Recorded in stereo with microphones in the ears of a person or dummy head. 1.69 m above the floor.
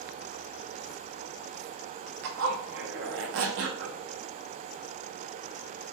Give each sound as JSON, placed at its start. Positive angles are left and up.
{"t": 2.2, "sound": "a zipper", "side_deg": -60, "distance_m": 0.5}